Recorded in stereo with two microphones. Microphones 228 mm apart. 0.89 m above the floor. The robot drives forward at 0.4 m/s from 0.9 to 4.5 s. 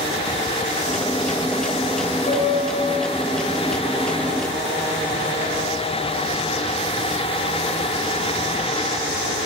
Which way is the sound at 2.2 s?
40° left (ahead or behind).